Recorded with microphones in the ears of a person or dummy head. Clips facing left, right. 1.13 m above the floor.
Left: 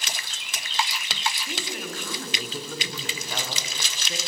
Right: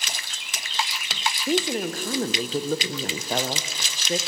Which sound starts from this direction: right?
A woman speaking, at 1.5 s.